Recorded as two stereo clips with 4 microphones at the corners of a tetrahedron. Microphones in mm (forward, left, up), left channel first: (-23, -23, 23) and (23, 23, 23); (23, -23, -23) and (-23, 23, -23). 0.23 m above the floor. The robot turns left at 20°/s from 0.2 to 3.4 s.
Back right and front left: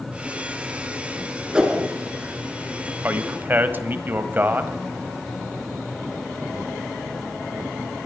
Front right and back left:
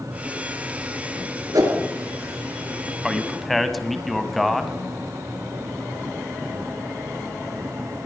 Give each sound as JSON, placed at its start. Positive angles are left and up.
{"t": 1.5, "sound": "a whoosh", "azimuth_deg": 120, "distance_m": 2.0}
{"t": 3.0, "sound": "a man speaking", "azimuth_deg": 50, "distance_m": 1.2}